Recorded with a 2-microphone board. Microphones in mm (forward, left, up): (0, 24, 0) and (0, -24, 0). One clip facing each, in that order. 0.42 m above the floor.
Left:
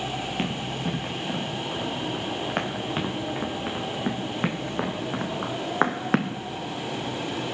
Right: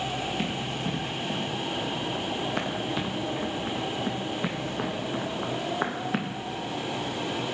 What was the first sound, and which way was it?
Running footsteps, 45° left (ahead or behind).